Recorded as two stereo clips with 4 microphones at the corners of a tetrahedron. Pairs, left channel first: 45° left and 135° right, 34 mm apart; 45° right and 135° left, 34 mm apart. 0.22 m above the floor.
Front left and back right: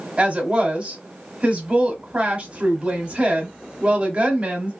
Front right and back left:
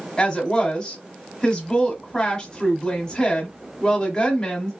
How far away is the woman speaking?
About 1.2 m.